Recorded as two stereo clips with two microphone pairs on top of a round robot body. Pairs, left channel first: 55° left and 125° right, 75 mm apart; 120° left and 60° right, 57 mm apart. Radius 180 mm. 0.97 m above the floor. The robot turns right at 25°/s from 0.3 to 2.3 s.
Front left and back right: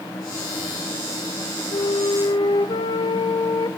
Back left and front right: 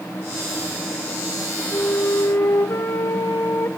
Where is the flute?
65° left, 1.1 m; by 3.7 s 80° left, 1.1 m.